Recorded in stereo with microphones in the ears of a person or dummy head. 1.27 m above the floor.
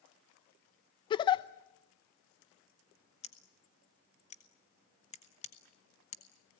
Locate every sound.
1.1 s a giggle: 20° left (ahead or behind), 0.7 m
3.2 s scissors: 30° left (ahead or behind), 1.3 m